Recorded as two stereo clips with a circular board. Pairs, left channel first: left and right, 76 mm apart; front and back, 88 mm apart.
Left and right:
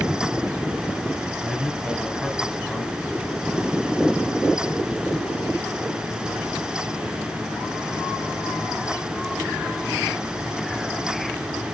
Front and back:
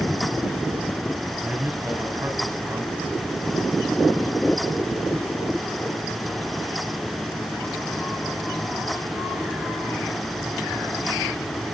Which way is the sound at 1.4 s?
165° left.